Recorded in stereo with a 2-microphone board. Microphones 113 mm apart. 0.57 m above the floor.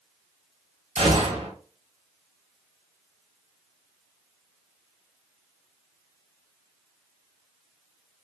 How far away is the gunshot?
About 1.5 m.